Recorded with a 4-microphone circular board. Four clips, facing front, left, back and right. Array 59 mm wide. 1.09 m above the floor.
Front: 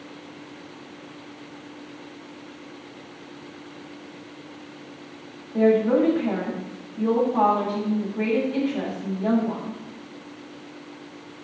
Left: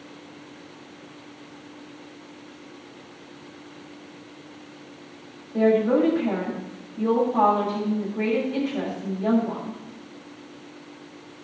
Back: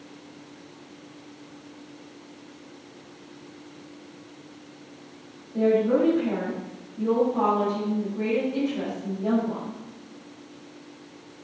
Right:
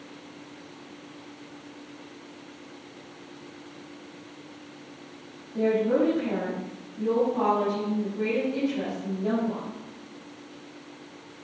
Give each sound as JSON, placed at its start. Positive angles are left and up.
{"t": 5.5, "sound": "a woman speaking", "azimuth_deg": 65, "distance_m": 5.0}